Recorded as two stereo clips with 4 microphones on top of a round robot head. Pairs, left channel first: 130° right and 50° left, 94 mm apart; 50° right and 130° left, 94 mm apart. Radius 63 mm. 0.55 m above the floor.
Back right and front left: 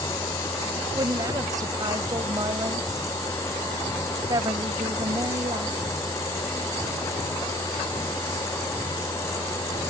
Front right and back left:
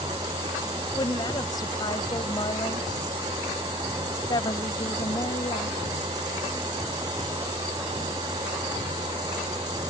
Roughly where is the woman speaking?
Ahead.